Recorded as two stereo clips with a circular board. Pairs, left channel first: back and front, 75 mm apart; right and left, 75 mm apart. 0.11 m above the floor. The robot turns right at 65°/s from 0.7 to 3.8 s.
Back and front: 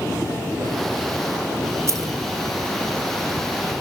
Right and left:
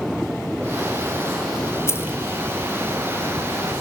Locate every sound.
1.9 s keys jangling: 40° right, 1.6 m; by 2.1 s 25° right, 1.6 m